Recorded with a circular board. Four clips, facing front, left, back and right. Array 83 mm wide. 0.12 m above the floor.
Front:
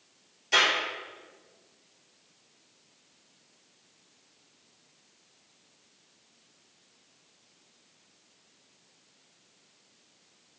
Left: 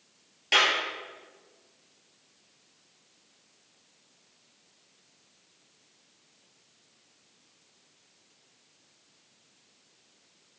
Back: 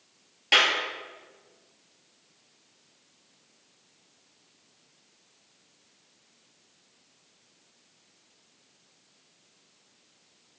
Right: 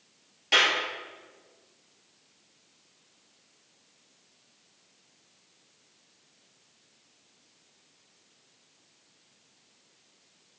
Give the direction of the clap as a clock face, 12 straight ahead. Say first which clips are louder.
Even, back 1 dB; 6 o'clock.